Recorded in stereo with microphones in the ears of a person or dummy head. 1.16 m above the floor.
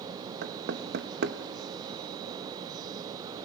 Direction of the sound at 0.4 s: 65° right (ahead or behind).